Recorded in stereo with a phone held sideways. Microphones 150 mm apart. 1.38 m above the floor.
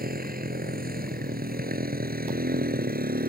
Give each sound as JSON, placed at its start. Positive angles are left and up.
{"t": 0.0, "sound": "a motorcycle", "side_deg": -80}